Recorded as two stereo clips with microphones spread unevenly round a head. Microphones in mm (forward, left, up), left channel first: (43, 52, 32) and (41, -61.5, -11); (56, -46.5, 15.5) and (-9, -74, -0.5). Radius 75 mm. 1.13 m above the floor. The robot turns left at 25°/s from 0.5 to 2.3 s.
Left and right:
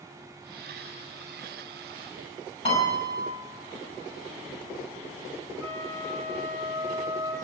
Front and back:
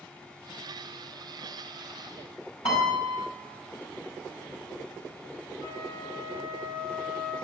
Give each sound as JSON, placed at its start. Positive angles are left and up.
{"t": 2.6, "sound": "a piano", "azimuth_deg": 50, "distance_m": 6.0}
{"t": 5.6, "sound": "a flute", "azimuth_deg": 10, "distance_m": 7.5}